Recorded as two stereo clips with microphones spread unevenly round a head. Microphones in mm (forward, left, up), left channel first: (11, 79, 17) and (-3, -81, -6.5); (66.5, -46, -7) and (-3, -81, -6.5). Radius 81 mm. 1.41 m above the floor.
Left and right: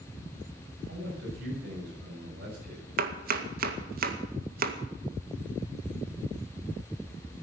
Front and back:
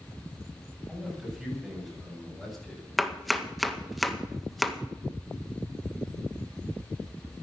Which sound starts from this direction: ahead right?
Chopping, at 3.0 s.